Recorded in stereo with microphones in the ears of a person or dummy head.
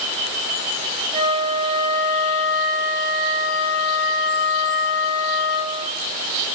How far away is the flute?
About 2 m.